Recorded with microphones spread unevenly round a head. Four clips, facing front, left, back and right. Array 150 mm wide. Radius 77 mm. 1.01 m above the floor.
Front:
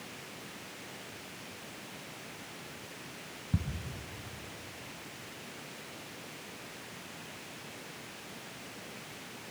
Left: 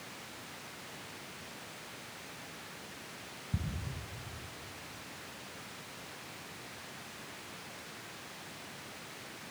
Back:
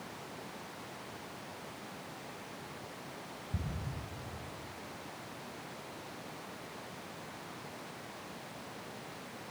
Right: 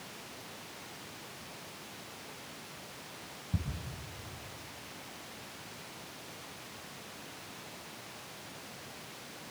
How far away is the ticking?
About 4 m.